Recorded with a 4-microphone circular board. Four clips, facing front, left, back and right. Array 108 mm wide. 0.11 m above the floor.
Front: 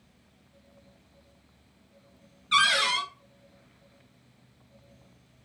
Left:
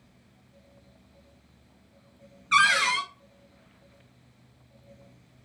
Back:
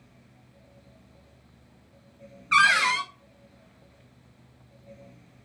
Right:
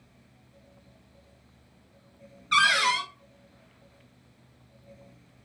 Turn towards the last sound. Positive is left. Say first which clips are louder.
# left 1 dB, back 4 dB
turn(degrees=165)